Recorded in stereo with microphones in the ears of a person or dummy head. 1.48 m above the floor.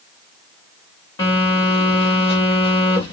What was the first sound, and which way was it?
A phone buzzing, 30° left (ahead or behind).